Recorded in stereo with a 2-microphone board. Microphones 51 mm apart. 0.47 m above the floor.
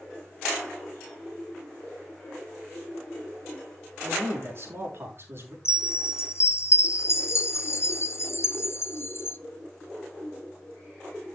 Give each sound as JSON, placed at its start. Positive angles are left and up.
{"t": 4.0, "sound": "a man speaking", "side_deg": -50, "distance_m": 5.5}
{"t": 5.7, "sound": "a chime", "side_deg": 55, "distance_m": 0.8}